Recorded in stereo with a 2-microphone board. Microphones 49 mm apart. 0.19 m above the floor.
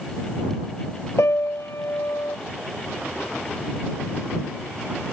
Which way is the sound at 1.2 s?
70° left (ahead or behind).